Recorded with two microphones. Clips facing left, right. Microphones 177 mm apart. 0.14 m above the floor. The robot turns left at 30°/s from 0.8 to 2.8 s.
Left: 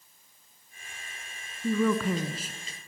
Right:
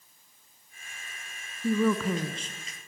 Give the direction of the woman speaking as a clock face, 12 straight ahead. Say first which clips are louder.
Even; 6 o'clock.